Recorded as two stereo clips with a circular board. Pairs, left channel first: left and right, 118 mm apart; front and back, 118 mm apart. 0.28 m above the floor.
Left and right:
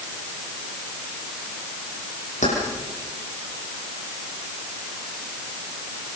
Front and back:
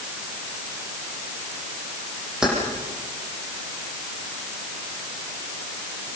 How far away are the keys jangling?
About 10 m.